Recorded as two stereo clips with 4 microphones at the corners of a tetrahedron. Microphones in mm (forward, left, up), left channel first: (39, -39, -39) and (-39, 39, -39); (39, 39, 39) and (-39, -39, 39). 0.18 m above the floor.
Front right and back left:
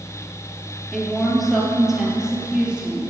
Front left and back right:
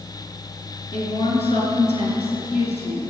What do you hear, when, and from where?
0.9 s a woman speaking: 40° left, 3.5 m; by 3.1 s 55° left, 4.5 m